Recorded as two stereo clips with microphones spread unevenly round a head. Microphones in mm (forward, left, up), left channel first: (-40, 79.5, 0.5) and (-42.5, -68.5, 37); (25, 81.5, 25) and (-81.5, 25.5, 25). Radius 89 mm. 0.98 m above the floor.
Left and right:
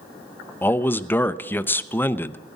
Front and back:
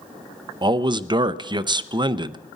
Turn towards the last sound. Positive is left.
turn(degrees=160)